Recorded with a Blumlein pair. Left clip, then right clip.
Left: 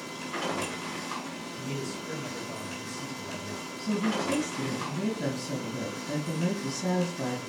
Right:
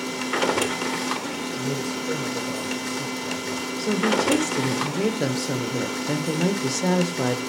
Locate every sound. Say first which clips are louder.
0.0 s a machine running: right 10 dB; 50° right, 0.8 m
1.5 s a man speaking: right 7 dB; 65° right, 4.5 m
3.8 s a woman speaking: right 8 dB; 55° right, 1.0 m